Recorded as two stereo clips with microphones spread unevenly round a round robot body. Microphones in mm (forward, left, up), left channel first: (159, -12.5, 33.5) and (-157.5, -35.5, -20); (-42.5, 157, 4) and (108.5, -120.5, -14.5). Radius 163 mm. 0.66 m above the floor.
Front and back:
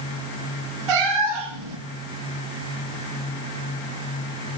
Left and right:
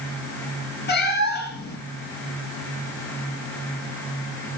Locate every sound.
0.9 s a cat meowing: straight behind, 2 m